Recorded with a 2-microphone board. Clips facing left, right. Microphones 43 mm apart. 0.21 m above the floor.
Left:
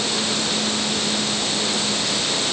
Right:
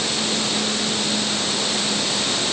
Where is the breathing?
No breathing in this recording.